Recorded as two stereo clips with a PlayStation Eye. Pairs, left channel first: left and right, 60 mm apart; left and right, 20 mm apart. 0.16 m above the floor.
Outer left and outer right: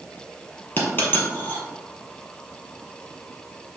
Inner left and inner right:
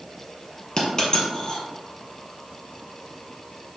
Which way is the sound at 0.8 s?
30° left (ahead or behind).